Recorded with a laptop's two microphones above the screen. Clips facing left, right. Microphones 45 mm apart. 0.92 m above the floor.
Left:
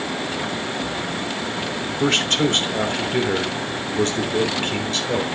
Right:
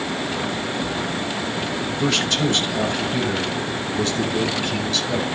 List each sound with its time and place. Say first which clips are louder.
2.0 s a man speaking: left 2 dB; 50° left (ahead or behind), 2.5 m